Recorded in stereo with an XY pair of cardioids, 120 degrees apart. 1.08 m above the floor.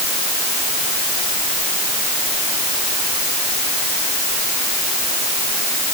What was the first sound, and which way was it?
Only background noise.